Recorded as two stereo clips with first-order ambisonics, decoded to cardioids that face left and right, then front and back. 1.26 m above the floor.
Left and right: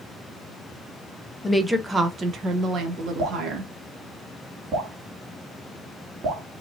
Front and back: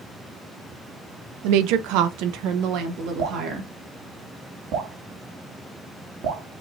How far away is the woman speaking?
About 0.7 m.